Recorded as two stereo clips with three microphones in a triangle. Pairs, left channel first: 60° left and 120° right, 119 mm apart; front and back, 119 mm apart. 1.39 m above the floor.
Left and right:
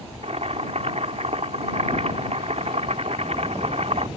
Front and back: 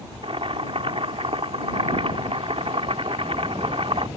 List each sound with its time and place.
0.2 s boiling: 145° right